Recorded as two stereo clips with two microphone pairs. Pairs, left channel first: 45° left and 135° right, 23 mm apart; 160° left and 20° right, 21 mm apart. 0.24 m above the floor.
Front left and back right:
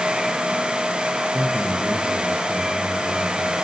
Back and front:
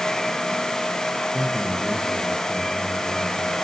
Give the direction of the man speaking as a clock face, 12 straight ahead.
3 o'clock.